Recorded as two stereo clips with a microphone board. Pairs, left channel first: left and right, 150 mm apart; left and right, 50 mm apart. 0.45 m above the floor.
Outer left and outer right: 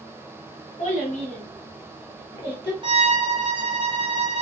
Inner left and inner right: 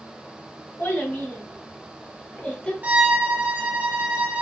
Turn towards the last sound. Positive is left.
turn(degrees=-35)  # may be behind; listen again after turning